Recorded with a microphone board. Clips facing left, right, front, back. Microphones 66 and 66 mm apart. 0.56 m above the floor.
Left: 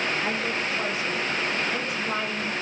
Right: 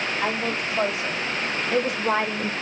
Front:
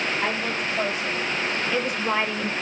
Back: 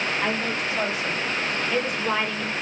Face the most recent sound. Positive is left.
turn(degrees=-75)